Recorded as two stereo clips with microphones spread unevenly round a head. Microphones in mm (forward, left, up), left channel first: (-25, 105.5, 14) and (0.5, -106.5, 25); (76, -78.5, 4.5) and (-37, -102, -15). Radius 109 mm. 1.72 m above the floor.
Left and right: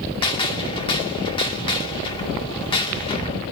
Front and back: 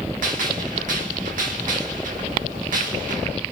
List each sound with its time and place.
0.2 s a gunshot: 165° left, 2.5 m